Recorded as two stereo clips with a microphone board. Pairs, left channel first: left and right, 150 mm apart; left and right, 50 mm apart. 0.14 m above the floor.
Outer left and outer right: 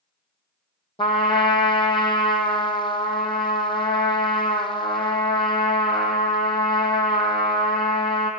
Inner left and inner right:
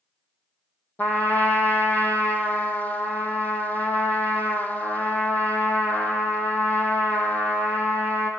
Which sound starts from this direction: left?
A trumpet, at 1.0 s.